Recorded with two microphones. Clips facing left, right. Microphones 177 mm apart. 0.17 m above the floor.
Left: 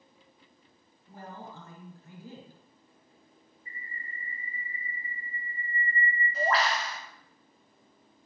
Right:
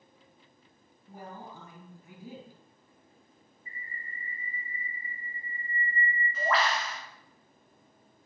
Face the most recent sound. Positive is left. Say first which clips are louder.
# left 1 dB
turn(degrees=40)  # may be behind; listen again after turning